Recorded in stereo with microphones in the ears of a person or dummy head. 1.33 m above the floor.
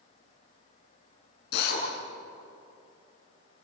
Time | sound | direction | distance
1.5 | a drill | 60° left (ahead or behind) | 7.5 m